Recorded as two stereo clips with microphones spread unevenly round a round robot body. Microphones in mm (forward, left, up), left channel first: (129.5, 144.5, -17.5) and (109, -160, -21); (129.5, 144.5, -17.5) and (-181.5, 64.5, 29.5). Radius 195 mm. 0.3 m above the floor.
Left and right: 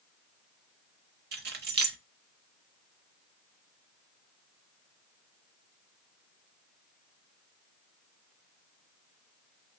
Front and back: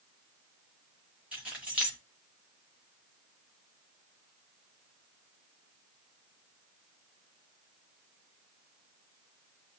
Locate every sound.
1.3 s keys jangling: 70° right, 0.7 m